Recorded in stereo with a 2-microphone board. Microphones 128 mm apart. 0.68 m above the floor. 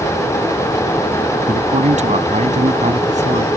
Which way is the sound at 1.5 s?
65° right (ahead or behind).